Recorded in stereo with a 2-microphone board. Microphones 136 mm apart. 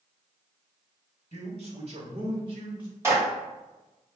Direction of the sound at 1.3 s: 50° right (ahead or behind).